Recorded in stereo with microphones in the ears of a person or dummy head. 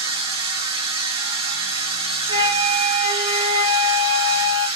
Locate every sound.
0.0 s a machine running: 30° right (ahead or behind), 1.4 m
2.3 s a flute: 25° left (ahead or behind), 1.4 m